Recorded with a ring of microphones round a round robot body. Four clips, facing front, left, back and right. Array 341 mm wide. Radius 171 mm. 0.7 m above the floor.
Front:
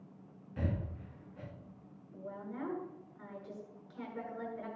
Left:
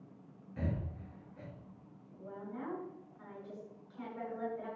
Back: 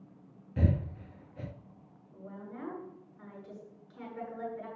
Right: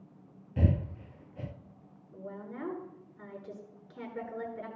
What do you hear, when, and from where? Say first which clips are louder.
0.6 s breathing: right 8 dB, back 6 dB; 130° right, 0.7 m
2.1 s a woman speaking: right 3 dB, front 2 dB; 90° right, 8.5 m